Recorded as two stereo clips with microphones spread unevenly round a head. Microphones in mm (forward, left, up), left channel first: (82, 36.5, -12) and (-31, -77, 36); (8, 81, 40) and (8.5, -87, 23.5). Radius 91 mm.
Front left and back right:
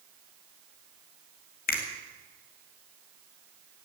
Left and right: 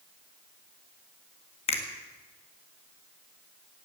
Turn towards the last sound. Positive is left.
turn(degrees=35)